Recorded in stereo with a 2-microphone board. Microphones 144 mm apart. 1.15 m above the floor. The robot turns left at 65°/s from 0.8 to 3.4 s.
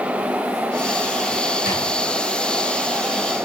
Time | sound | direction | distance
1.6 | a drawer | 85° left | 3.5 m